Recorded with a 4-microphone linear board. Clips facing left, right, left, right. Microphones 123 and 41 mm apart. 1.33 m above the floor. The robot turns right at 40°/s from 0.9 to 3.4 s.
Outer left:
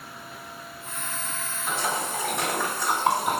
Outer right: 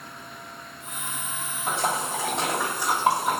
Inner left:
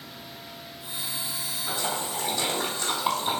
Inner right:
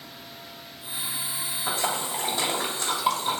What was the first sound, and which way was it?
A splash, 60° right (ahead or behind).